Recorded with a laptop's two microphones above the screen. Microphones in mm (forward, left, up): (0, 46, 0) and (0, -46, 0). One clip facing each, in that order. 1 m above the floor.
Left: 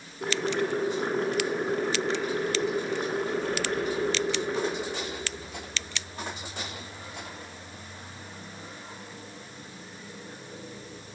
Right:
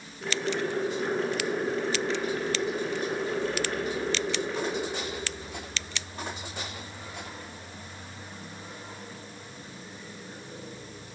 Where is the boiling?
55° left (ahead or behind), 1.8 m.